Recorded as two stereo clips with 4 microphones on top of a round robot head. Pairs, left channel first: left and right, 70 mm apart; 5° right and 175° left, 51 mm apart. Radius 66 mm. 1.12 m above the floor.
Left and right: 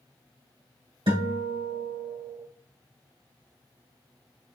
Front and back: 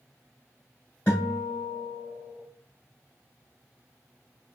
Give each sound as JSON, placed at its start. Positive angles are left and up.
{"t": 1.1, "sound": "a guitar", "azimuth_deg": -80, "distance_m": 2.5}